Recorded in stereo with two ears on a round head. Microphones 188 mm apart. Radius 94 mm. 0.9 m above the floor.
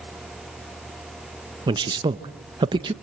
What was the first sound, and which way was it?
A man speaking, 20° right (ahead or behind).